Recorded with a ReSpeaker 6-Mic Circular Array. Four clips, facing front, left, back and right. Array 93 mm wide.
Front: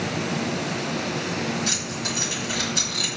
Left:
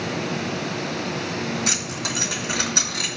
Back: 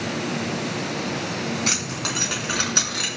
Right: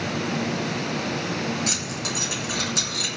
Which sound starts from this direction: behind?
Keys jangling, at 1.7 s.